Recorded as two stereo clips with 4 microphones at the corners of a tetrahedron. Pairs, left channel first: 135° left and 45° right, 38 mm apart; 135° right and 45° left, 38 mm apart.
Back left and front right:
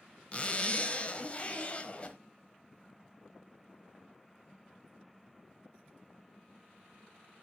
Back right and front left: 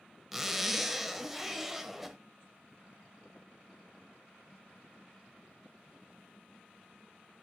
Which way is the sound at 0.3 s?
125° left.